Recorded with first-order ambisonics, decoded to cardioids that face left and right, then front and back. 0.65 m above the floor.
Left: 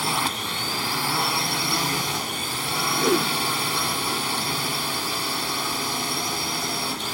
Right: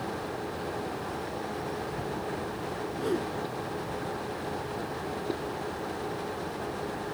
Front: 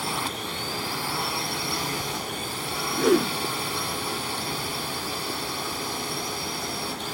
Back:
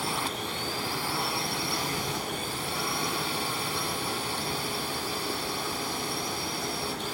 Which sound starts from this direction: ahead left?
A whoosh, at 2.9 s.